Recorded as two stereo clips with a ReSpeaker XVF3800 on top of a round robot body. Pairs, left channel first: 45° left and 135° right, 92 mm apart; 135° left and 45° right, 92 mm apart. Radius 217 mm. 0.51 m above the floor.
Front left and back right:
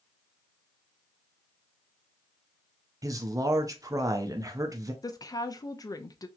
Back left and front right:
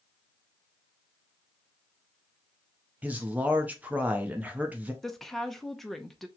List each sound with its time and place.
3.0 s a man speaking: 110° right, 1.0 m
5.0 s a woman speaking: 50° left, 0.9 m